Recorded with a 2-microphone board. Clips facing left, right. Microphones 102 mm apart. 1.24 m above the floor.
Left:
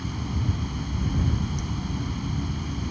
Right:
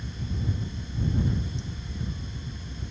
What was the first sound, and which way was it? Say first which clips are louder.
Running water: left 4 dB; 70° left (ahead or behind).